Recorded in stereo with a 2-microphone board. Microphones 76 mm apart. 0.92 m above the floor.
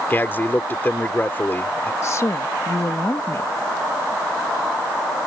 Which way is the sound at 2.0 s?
40° left (ahead or behind).